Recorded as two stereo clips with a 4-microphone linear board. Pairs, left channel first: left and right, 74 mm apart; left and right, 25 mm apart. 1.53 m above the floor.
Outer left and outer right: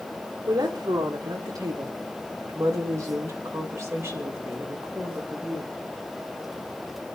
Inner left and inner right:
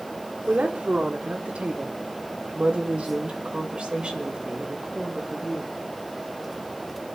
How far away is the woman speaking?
About 2 m.